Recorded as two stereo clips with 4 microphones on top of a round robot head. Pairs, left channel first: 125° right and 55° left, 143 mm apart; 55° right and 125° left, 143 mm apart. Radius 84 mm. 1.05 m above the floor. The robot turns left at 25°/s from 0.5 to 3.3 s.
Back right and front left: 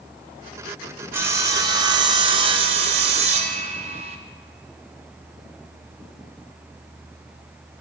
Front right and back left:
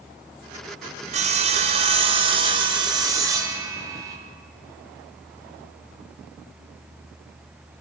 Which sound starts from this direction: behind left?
Sawing, at 1.1 s.